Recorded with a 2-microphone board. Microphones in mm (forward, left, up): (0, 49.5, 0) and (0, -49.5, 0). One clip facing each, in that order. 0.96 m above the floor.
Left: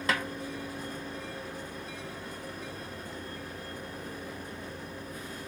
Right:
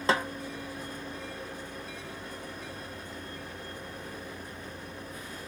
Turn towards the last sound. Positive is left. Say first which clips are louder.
# right 4 dB
turn(degrees=-30)  # may be behind; listen again after turning